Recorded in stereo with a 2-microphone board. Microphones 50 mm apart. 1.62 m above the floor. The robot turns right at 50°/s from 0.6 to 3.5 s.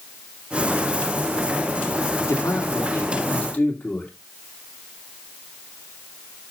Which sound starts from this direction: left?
A man speaking, at 2.3 s.